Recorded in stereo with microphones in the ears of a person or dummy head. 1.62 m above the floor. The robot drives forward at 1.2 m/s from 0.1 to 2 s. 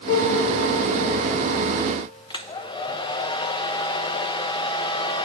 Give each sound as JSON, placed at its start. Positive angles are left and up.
{"t": 0.1, "sound": "a piano", "side_deg": 35, "distance_m": 3.5}
{"t": 2.3, "sound": "a hair dryer", "side_deg": 20, "distance_m": 0.5}